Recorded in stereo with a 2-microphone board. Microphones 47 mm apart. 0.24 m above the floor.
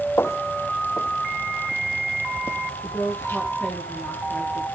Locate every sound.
0.2 s footsteps: 70° left (ahead or behind), 0.5 m; by 3.4 s 55° left (ahead or behind), 3 m
2.8 s a woman speaking: 30° left (ahead or behind), 4.5 m